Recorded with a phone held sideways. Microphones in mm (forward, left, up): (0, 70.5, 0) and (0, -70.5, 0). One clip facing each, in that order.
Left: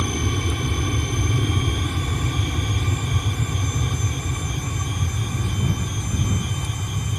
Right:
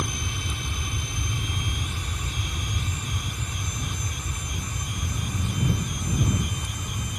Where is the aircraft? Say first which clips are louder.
Left 8 dB; 65° left (ahead or behind); by 7.2 s 55° left (ahead or behind).